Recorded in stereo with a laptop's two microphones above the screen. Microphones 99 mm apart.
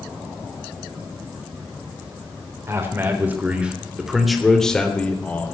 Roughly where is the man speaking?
Right.